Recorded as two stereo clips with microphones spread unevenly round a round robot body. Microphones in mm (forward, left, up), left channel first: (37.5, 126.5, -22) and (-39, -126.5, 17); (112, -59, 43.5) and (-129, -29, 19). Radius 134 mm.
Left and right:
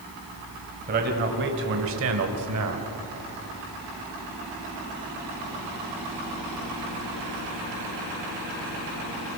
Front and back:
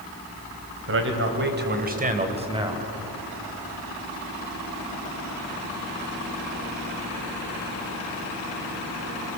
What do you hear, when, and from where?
0.9 s a man speaking: 165° right, 3 m; by 2.9 s 115° right, 2 m